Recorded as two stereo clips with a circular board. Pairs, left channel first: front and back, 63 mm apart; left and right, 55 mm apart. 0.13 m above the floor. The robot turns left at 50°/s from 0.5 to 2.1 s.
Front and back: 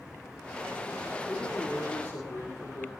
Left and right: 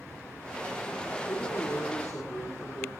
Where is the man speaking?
55° left, 3.5 m; by 2.9 s 15° left, 3.5 m.